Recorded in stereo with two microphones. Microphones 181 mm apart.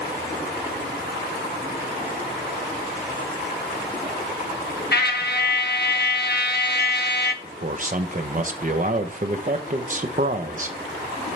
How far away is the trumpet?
About 0.8 m.